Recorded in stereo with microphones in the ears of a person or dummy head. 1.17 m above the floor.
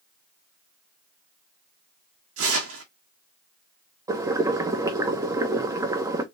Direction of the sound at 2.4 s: 80° right.